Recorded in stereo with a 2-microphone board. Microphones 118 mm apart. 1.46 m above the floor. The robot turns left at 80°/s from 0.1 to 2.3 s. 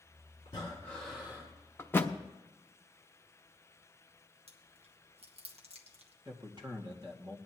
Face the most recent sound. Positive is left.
turn(degrees=-40)  # may be behind; listen again after turning